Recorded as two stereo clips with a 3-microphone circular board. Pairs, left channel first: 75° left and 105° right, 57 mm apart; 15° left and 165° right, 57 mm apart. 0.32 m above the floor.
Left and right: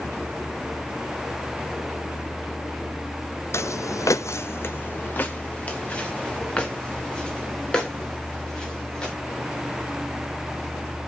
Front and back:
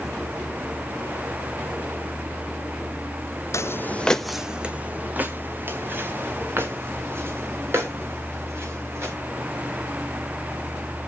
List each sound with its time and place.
3.5 s footsteps: 40° left, 0.7 m; by 9.1 s 150° left, 5.5 m